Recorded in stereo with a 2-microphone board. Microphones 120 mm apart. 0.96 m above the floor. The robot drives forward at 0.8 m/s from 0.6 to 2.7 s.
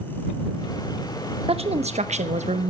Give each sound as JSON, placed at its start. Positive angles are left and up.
{"t": 1.5, "sound": "a woman speaking", "side_deg": -50, "distance_m": 1.2}